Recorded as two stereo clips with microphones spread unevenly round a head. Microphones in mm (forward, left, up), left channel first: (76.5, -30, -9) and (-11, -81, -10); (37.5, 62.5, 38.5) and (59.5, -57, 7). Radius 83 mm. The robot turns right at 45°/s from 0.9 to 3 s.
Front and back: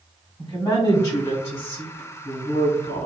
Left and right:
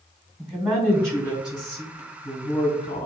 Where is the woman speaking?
20° right, 1.7 m; by 3.1 s 75° left, 1.7 m.